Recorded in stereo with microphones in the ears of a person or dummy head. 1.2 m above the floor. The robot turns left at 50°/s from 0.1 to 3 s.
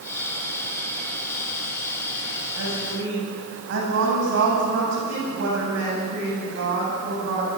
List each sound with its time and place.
2.6 s a woman speaking: 85° right, 8.5 m; by 7.5 s 60° right (ahead or behind), 8.5 m